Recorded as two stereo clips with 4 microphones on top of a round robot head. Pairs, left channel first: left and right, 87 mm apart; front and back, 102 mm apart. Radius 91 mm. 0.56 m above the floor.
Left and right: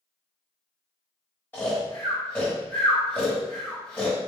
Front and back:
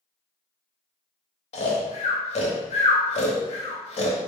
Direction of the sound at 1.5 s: 15° left.